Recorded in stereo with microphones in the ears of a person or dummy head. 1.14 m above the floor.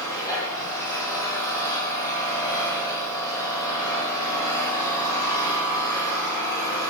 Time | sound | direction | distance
0.0 | an engine running | 15° left (ahead or behind) | 9.5 m